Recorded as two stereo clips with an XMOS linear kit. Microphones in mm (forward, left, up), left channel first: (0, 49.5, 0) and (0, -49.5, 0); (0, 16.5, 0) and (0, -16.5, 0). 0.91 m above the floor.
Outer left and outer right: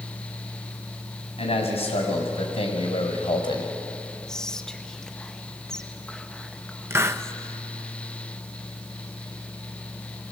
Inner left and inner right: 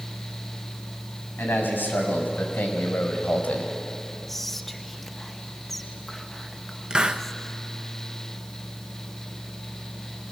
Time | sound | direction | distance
1.4 | a man speaking | 85° left | 5.5 m
4.3 | whispering | 5° left (ahead or behind) | 1.1 m
6.9 | a hiss | 25° right (ahead or behind) | 0.9 m